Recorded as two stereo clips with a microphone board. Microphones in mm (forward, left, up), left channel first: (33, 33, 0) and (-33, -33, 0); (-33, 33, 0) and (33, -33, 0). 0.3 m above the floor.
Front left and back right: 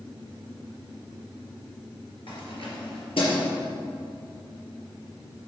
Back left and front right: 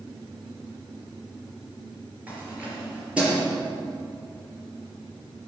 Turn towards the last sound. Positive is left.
turn(degrees=35)